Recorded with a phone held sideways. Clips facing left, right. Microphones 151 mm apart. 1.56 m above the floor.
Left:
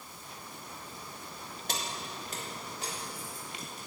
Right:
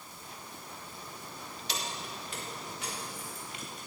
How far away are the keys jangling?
About 2.0 m.